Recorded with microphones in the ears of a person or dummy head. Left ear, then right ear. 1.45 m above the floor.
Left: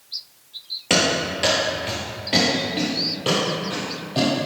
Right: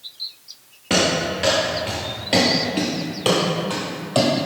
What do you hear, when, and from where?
0.9 s running footsteps: 25° left (ahead or behind), 1.9 m; by 4.3 s 50° right (ahead or behind), 3 m